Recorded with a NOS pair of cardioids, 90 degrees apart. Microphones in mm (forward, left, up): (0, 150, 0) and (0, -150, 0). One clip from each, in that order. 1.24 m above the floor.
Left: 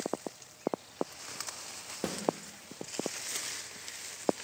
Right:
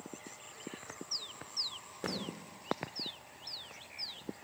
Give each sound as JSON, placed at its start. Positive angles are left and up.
{"t": 2.0, "sound": "a snare drum", "azimuth_deg": 45, "distance_m": 1.9}